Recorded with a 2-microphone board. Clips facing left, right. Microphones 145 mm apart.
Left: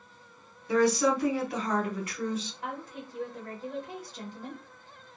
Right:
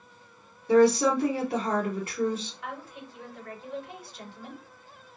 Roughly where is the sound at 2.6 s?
Left.